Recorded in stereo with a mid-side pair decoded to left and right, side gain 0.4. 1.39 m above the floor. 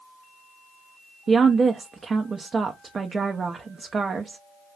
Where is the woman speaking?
40° right, 0.6 m.